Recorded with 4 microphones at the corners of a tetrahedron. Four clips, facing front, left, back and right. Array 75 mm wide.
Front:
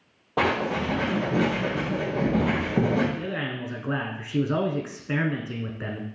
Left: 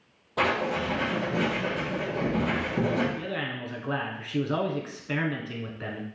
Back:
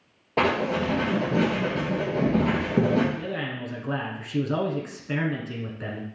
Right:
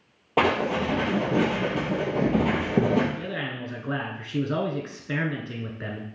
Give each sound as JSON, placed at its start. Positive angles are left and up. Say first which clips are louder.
{"t": 0.4, "sound": "writing", "louder": "right 3 dB, back 1 dB", "azimuth_deg": -105, "distance_m": 3.0}
{"t": 3.2, "sound": "a man speaking", "louder": "right 1 dB, front 1 dB", "azimuth_deg": -10, "distance_m": 1.1}